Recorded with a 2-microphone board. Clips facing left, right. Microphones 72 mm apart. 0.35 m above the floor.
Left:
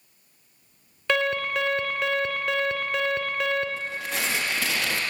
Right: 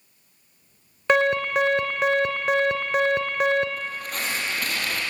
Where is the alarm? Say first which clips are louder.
Right 4 dB; 20° right (ahead or behind), 1.4 m.